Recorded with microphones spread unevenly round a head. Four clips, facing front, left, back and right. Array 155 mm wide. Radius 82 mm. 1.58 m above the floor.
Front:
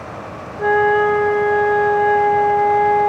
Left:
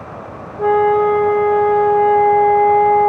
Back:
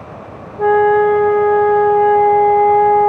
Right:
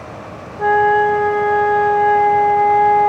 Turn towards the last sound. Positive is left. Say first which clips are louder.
# even, back 4 dB
turn(degrees=-170)